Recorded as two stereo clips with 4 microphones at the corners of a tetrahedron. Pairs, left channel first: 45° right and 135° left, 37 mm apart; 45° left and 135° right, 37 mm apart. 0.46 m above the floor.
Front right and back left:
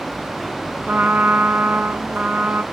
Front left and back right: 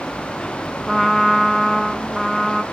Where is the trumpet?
130° left, 0.5 m.